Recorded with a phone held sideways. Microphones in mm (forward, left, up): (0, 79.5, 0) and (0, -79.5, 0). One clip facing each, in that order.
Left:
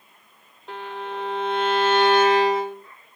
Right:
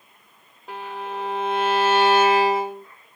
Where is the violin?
5° right (ahead or behind), 1.1 m.